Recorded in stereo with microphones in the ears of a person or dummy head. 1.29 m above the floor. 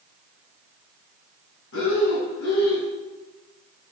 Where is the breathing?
65° left (ahead or behind), 6.5 m.